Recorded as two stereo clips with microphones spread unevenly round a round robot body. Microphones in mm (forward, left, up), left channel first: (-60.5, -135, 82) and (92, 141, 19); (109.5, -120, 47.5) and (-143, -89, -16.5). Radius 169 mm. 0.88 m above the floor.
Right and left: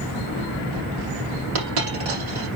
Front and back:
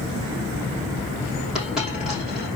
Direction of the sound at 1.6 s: 80° left.